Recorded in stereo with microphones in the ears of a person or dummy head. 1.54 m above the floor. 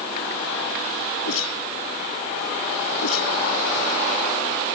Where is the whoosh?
80° left.